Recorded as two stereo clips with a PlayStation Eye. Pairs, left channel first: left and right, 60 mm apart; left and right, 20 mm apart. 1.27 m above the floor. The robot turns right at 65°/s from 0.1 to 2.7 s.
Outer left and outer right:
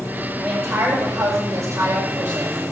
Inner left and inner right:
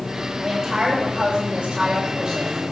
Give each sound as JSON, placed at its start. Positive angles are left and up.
{"t": 0.4, "sound": "a woman speaking", "azimuth_deg": -150, "distance_m": 6.5}